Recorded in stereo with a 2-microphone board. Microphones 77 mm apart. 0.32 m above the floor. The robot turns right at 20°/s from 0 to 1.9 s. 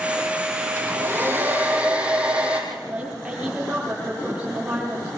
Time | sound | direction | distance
0.8 | a hair dryer | 40° right (ahead or behind) | 4.5 m
2.7 | a woman speaking | 15° right (ahead or behind) | 9.5 m